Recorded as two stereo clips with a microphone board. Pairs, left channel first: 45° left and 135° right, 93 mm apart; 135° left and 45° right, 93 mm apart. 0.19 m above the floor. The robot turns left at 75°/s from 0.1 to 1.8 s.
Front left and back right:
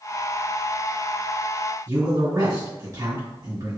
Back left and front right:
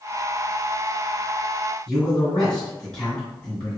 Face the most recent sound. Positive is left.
turn(degrees=-150)